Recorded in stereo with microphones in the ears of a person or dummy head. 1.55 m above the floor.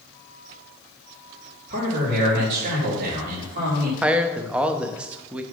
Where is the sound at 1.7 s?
40° right (ahead or behind), 2.5 m.